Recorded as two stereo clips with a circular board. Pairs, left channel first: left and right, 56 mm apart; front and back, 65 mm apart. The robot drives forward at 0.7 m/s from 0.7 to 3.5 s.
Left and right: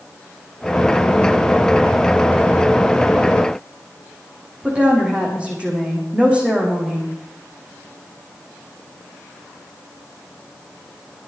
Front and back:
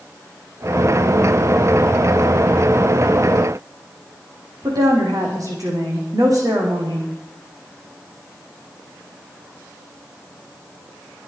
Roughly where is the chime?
I don't hear a chime.